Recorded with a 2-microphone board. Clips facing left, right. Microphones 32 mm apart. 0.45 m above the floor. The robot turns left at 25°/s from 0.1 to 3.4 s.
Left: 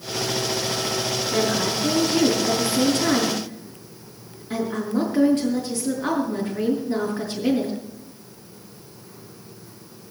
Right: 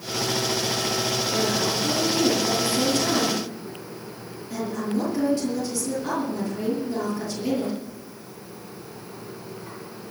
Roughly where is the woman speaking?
Left.